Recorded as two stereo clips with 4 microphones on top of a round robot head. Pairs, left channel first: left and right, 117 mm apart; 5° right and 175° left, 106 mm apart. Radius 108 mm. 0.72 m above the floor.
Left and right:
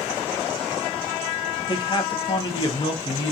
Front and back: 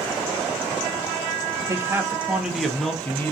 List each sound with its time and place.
1.7 s a man speaking: 125° left, 1.2 m; by 3.3 s 60° left, 1.2 m